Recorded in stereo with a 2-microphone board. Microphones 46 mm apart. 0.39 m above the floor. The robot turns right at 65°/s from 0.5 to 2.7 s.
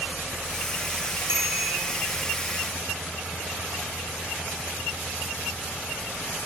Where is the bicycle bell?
75° right (ahead or behind), 7.5 m.